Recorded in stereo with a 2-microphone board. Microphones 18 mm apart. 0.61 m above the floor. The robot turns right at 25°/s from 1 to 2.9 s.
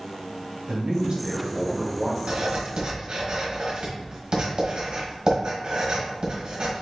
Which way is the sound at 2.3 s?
65° right (ahead or behind).